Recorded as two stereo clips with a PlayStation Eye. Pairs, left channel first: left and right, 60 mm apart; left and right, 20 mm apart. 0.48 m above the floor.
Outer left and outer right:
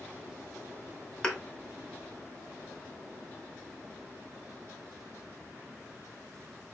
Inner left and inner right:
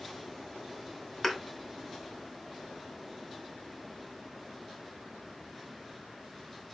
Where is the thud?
15° left (ahead or behind), 0.8 m.